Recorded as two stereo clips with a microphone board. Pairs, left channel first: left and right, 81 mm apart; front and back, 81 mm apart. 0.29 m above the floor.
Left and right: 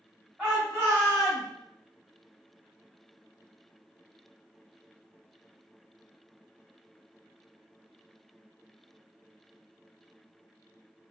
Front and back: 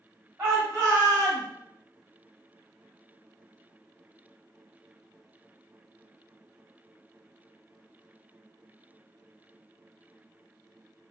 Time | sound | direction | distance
0.4 | a shout | 145° right | 1.4 m